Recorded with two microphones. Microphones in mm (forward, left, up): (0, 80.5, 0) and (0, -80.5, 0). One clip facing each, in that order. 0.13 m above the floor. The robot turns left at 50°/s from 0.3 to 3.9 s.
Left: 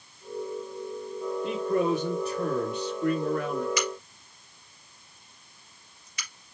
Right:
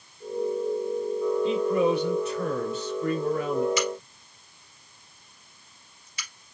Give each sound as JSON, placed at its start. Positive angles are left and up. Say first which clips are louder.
{"t": 1.4, "sound": "a man speaking", "louder": "right 1 dB", "azimuth_deg": 85, "distance_m": 2.5}
{"t": 3.8, "sound": "a crack", "louder": "right 3 dB", "side_deg": -25, "distance_m": 2.5}